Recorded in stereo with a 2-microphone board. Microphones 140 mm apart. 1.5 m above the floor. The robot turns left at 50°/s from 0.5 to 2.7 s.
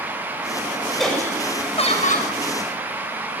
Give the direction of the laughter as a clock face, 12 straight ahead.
6 o'clock.